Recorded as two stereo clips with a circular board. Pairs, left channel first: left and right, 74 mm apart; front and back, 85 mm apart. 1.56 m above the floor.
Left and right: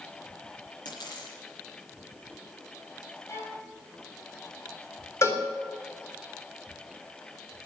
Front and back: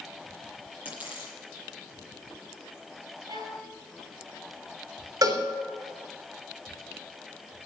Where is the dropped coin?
105° left, 9 m.